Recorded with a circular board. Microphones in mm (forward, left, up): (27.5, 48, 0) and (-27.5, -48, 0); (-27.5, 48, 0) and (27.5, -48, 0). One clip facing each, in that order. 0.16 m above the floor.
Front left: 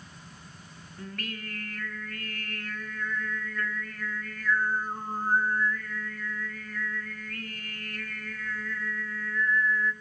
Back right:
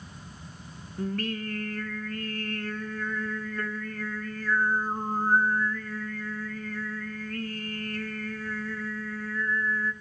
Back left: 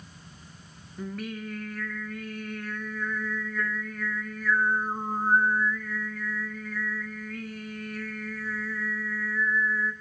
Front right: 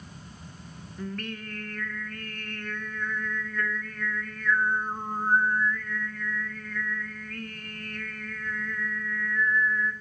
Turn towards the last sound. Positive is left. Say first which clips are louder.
# back right 9 dB, back left 1 dB
turn(degrees=-160)